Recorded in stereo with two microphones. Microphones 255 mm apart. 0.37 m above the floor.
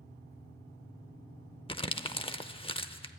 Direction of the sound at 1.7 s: 20° left (ahead or behind).